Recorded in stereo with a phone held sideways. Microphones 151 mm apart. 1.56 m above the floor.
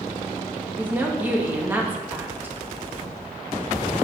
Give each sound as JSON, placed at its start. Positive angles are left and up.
{"t": 0.8, "sound": "a woman speaking", "side_deg": -15, "distance_m": 2.5}